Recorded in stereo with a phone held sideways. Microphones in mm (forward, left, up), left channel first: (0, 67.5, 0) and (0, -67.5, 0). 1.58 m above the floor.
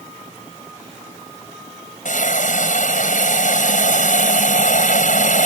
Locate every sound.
2.0 s a hiss: 70° left (ahead or behind)